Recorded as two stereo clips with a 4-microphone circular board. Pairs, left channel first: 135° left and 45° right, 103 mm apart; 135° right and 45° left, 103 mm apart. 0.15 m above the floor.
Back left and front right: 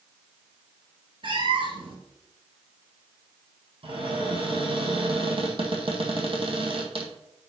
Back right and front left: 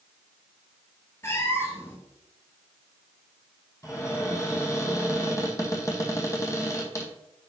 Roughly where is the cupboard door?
Right.